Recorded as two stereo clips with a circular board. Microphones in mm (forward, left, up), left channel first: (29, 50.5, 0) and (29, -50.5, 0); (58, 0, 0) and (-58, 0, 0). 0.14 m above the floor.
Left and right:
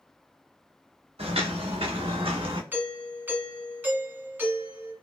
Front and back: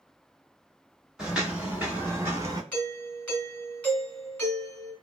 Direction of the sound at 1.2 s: 95° right.